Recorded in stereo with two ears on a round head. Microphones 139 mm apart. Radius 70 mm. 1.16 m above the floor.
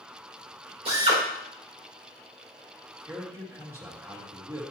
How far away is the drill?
About 3 m.